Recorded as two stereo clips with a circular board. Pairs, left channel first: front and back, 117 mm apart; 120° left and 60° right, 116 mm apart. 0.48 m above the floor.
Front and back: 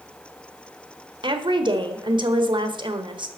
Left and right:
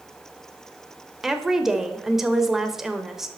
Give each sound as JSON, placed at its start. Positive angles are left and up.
{"t": 1.2, "sound": "a woman speaking", "azimuth_deg": -145, "distance_m": 1.3}